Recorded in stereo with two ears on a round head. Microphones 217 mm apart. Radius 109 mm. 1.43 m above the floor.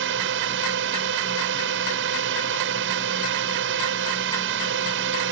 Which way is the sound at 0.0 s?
55° right (ahead or behind).